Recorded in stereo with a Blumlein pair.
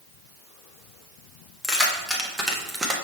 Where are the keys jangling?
5° left, 1.7 m; by 3.0 s 15° right, 1.2 m.